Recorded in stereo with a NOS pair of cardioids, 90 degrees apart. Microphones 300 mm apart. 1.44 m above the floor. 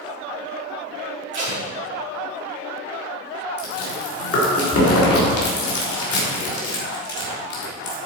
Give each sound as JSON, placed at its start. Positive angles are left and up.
{"t": 1.3, "sound": "tape being pulled", "azimuth_deg": -40, "distance_m": 4.0}
{"t": 3.6, "sound": "chewing", "azimuth_deg": 50, "distance_m": 3.5}